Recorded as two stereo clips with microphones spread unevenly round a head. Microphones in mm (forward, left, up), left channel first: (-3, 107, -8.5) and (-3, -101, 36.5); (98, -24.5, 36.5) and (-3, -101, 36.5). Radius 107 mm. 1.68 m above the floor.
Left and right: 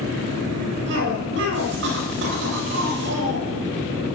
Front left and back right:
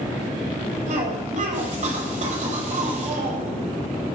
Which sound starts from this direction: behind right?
A cough, at 0.9 s.